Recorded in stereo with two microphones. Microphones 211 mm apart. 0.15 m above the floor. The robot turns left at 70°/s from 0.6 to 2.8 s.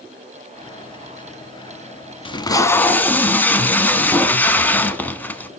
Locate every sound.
2.2 s tape being pulled: 25° left (ahead or behind), 0.5 m; by 5.5 s 10° left (ahead or behind), 0.5 m